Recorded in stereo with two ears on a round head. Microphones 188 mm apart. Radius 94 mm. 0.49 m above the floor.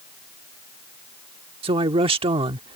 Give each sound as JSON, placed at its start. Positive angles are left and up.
{"t": 1.6, "sound": "a man speaking", "side_deg": -25}